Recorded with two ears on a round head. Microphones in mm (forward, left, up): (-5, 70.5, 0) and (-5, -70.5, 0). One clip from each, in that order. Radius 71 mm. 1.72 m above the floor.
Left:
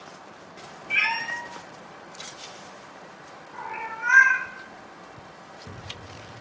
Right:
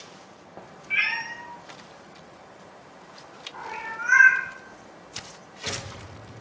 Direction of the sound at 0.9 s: 20° left (ahead or behind).